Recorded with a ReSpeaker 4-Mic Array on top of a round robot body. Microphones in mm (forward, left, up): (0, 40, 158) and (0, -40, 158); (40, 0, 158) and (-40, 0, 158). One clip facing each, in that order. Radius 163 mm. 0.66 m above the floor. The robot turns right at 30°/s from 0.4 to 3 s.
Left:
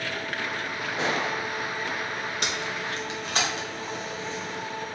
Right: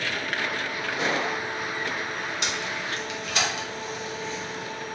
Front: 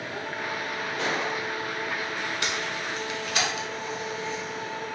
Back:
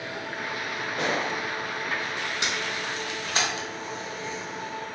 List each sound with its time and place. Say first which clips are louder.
1.0 s a gunshot: even, back 2 dB; 145° left, 0.7 m; by 1.3 s 160° left, 0.7 m
2.4 s tape being pulled: even, even; 115° left, 1.1 m; by 5.0 s 135° left, 1.1 m